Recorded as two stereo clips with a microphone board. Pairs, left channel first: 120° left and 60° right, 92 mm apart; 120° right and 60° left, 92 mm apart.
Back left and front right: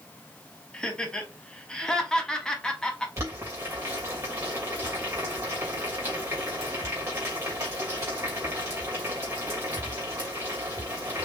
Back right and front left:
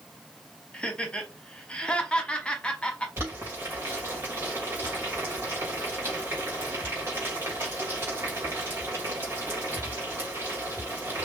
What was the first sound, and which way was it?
Laughter, 175° right.